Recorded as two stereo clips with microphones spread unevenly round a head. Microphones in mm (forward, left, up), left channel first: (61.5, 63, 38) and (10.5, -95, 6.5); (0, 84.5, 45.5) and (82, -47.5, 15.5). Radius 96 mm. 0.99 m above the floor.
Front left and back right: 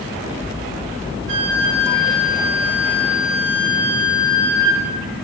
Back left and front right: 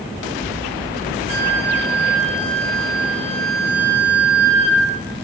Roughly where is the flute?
Behind right.